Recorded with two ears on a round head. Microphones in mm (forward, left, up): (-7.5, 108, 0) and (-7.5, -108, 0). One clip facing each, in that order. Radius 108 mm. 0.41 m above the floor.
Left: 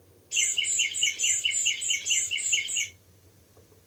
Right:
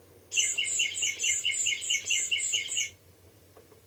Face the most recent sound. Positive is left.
turn(degrees=60)  # may be behind; listen again after turning